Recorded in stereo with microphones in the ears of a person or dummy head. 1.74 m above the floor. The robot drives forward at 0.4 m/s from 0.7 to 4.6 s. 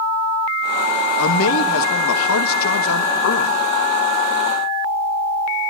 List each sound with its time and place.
1.2 s a man speaking: 80° left, 2.5 m; by 3.5 s 75° left (ahead or behind), 2.5 m